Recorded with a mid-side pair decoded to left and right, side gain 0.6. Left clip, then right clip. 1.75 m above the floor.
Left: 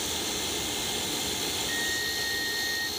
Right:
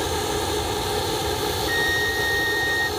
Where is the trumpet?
45° right.